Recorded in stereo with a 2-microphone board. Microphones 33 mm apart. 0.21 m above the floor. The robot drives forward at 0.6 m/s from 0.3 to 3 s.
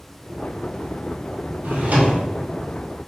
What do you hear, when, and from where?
1.6 s a drawer: 70° right (ahead or behind), 1.5 m; by 2.2 s 60° right (ahead or behind), 1.7 m